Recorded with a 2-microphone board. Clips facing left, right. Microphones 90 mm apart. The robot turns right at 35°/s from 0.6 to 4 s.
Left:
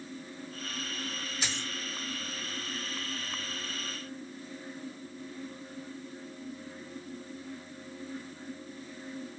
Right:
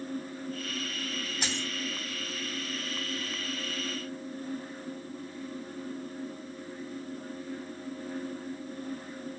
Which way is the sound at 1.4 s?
60° right (ahead or behind).